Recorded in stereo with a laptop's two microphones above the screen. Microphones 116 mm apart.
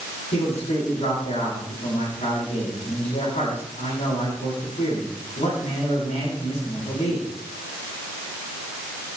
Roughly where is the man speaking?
Left.